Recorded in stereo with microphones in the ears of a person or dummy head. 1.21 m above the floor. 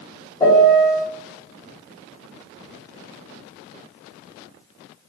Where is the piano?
20° left (ahead or behind), 1.1 m.